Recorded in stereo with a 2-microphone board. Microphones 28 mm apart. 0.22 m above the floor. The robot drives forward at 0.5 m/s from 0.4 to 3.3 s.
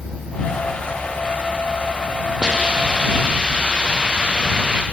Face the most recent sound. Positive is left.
turn(degrees=-30)  # may be behind; listen again after turning